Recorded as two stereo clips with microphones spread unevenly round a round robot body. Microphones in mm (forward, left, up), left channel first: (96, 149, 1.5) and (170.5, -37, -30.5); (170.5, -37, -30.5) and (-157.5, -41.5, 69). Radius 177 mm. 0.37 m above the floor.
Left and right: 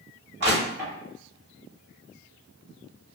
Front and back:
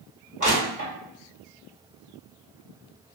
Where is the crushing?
100° right, 1.7 m.